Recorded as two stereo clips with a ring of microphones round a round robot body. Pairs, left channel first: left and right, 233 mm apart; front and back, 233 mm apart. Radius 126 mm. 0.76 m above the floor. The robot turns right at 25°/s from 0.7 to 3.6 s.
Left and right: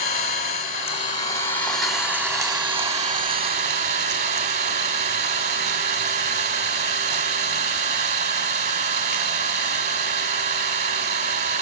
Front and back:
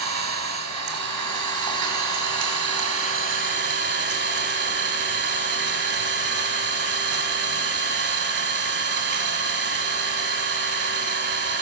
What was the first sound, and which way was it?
An engine running, 150° left.